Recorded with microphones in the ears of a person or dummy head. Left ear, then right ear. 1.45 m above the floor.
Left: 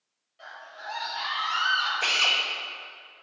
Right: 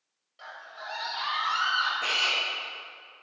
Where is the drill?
75° left (ahead or behind), 1.7 m.